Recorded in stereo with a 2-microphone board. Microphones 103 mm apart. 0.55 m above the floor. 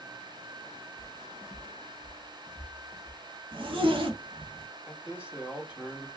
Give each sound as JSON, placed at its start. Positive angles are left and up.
{"t": 1.0, "sound": "footsteps", "side_deg": 35, "distance_m": 0.6}
{"t": 3.5, "sound": "a zipper", "side_deg": -55, "distance_m": 0.8}
{"t": 4.9, "sound": "a man speaking", "side_deg": -15, "distance_m": 1.2}